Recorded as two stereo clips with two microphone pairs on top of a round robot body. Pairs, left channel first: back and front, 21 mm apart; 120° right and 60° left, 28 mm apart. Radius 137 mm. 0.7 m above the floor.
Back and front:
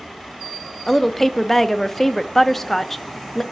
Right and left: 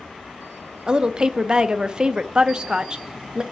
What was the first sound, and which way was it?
A woman speaking, 110° left.